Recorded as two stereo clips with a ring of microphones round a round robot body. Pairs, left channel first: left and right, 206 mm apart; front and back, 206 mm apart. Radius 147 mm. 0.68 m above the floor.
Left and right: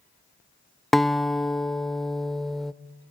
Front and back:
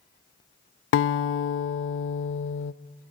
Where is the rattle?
I don't hear a rattle.